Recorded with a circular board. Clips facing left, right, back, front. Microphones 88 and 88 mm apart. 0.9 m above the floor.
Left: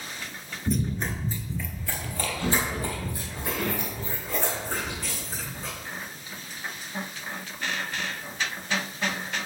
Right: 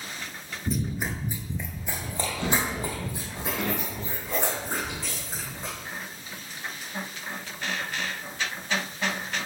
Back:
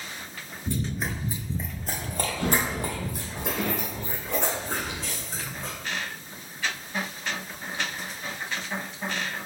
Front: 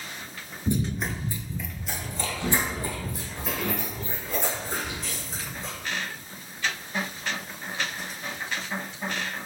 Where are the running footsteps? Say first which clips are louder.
Left 2 dB, front 3 dB; straight ahead, 0.9 m; by 5.7 s 160° right, 5.5 m.